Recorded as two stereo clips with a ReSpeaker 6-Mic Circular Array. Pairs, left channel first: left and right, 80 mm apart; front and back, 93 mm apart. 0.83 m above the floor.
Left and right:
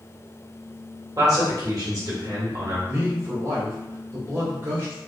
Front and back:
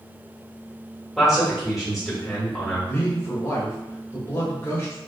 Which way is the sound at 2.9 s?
50° right.